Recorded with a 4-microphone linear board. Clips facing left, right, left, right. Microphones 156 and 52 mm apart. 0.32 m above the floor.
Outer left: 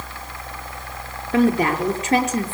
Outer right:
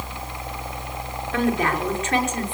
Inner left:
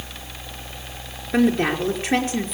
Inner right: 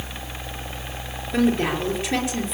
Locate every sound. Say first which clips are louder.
1.3 s a woman speaking: outer left 5 dB, inner left 2 dB; 35° left (ahead or behind), 5 m